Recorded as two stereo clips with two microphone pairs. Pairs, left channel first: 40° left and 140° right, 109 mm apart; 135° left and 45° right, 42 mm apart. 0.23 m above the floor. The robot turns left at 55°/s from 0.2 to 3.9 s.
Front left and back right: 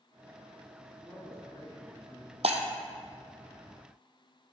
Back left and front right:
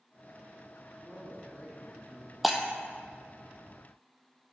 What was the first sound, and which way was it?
A man speaking, 125° left.